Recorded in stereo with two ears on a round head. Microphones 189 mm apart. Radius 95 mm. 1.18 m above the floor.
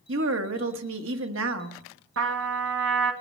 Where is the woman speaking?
75° right (ahead or behind), 1.4 m.